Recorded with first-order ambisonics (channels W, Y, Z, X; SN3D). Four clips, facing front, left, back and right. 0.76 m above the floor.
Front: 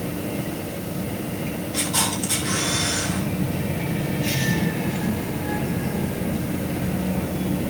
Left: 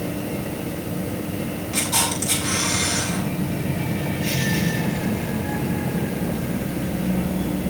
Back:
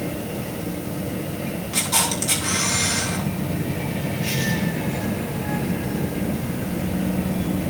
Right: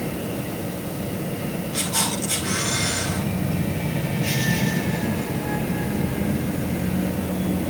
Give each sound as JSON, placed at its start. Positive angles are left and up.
{"t": 1.7, "sound": "a camera shutter", "azimuth_deg": 155, "distance_m": 8.0}